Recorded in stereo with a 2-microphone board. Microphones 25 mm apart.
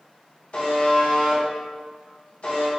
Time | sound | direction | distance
0.5 | a buzzer | 50° left (ahead or behind) | 1.2 m